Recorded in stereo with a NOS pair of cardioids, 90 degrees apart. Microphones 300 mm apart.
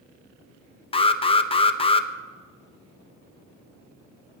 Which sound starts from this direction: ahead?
An alarm, at 0.9 s.